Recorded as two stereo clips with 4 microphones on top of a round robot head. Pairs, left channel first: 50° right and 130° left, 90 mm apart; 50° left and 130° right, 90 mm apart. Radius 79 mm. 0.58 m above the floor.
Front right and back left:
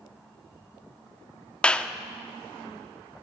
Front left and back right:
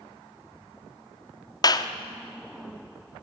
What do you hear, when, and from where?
1.6 s a clap: 25° left, 1.2 m